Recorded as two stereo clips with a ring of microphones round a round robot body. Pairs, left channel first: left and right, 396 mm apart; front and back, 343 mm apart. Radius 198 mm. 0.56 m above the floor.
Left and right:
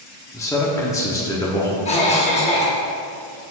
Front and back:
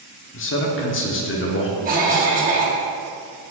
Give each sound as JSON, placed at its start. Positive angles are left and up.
{"t": 0.3, "sound": "a man speaking", "azimuth_deg": 15, "distance_m": 0.8}
{"t": 1.9, "sound": "a cough", "azimuth_deg": 145, "distance_m": 1.1}